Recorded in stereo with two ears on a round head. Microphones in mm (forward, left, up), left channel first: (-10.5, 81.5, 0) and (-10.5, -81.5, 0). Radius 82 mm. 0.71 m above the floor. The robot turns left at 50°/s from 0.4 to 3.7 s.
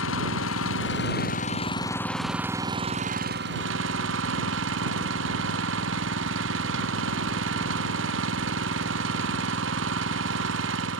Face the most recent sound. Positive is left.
turn(degrees=-75)